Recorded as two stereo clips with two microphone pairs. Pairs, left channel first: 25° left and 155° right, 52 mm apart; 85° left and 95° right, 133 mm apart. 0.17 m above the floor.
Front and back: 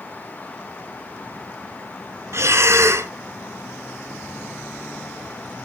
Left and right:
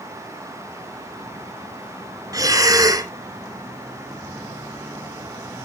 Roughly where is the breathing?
Behind right.